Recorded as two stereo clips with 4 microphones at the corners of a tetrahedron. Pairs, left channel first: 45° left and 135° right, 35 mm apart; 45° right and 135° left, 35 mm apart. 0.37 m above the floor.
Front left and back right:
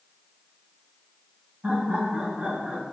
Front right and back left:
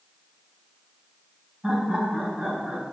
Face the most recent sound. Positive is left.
turn(degrees=-135)